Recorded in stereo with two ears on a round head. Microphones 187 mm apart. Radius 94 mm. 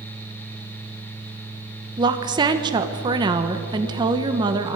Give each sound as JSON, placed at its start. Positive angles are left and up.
{"t": 2.0, "sound": "a woman speaking", "side_deg": -20, "distance_m": 1.2}